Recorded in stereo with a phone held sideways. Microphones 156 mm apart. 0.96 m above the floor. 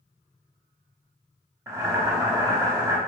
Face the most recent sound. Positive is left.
turn(degrees=-20)  # may be behind; listen again after turning